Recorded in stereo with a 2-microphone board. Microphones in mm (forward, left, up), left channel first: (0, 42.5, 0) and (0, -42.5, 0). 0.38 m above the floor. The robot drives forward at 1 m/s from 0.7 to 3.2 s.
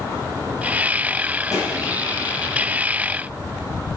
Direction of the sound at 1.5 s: 45° left (ahead or behind).